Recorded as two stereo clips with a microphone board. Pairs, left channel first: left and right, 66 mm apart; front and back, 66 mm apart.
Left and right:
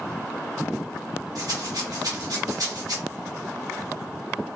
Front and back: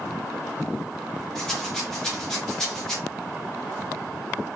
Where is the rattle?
80° right, 1.1 m.